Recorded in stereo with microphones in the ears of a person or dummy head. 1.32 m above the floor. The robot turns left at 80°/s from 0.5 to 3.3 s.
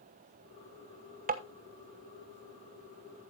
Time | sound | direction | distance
1.3 | tapping | 40° right (ahead or behind) | 1.1 m